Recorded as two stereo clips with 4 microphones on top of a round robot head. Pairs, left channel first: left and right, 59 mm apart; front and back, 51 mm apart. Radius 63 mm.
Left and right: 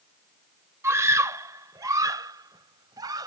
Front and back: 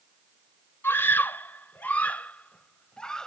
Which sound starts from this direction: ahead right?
A scream, at 0.8 s.